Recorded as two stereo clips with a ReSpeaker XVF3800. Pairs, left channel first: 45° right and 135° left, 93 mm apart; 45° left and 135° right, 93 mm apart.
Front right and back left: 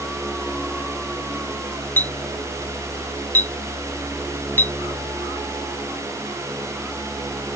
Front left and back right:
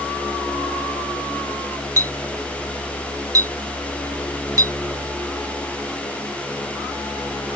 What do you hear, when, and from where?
2.0 s a clink: 105° right